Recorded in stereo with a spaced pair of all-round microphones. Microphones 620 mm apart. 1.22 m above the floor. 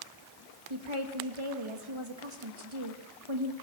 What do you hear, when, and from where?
0.7 s a woman speaking: 55° right (ahead or behind), 2.0 m